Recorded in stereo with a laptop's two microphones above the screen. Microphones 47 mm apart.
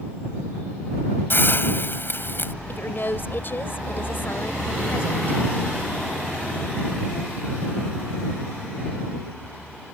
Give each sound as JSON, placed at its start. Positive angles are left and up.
{"t": 1.3, "sound": "a hiss", "side_deg": 50}
{"t": 2.7, "sound": "a woman speaking", "side_deg": 50}